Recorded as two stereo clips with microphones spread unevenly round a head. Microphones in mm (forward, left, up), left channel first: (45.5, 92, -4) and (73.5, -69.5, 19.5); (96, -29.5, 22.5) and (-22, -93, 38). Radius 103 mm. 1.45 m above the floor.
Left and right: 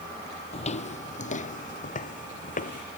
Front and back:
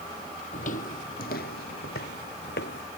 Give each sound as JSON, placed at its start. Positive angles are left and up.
{"t": 0.5, "sound": "footsteps", "azimuth_deg": 55}